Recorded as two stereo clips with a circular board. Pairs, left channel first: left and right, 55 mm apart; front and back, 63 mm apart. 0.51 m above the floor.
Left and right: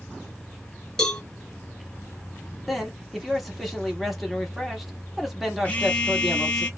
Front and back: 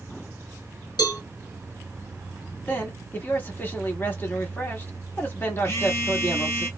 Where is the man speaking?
5° right, 1.1 m.